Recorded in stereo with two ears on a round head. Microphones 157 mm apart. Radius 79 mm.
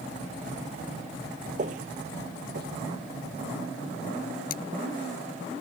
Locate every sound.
1.6 s footsteps: 45° right (ahead or behind); by 4.4 s 75° right (ahead or behind)
4.5 s cutlery clinking: 55° left (ahead or behind)